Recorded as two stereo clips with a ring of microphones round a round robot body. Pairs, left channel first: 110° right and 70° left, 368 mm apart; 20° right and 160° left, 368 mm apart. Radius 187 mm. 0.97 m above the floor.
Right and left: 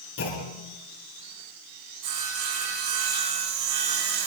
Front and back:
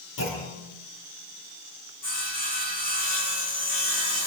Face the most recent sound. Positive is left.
turn(degrees=35)